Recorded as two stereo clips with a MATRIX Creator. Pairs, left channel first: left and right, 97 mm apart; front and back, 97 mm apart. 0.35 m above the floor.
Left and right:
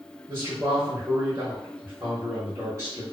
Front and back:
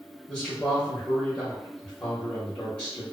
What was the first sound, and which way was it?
A man speaking, 70° right.